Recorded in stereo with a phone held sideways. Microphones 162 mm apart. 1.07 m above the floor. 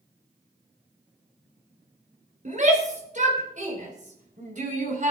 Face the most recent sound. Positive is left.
turn(degrees=-50)  # may be behind; listen again after turning